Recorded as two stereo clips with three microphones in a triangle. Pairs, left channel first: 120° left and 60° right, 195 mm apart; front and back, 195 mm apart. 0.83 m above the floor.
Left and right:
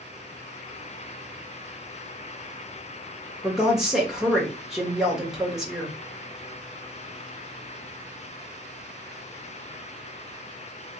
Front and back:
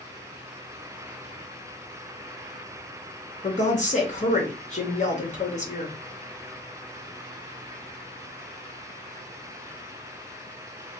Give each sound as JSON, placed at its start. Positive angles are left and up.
{"t": 3.4, "sound": "a woman speaking", "azimuth_deg": 25, "distance_m": 1.1}